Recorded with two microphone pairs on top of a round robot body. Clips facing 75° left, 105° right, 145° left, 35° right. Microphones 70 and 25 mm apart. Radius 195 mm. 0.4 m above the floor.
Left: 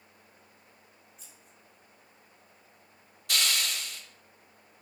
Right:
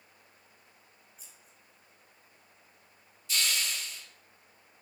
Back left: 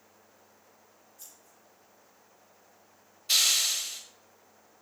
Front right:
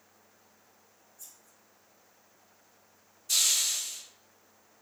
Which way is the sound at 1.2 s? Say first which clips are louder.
Left 2 dB, even; 170° left.